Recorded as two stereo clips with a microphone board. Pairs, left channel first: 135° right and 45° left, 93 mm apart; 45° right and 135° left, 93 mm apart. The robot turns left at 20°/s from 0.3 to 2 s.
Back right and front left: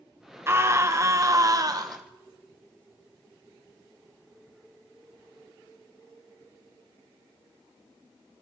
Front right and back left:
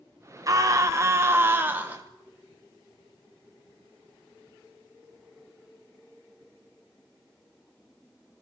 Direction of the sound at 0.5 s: 100° left.